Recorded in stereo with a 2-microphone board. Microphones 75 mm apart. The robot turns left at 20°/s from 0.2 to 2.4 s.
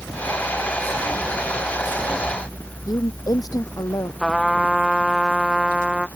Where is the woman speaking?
55° left (ahead or behind).